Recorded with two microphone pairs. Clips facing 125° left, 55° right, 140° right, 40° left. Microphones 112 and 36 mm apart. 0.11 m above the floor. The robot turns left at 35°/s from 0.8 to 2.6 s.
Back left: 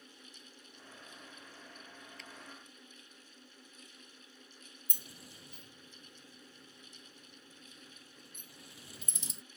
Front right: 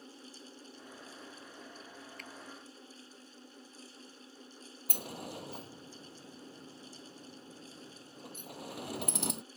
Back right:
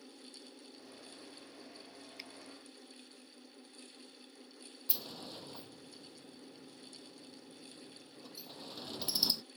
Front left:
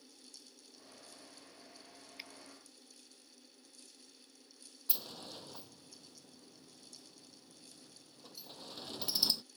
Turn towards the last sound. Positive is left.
turn(degrees=-50)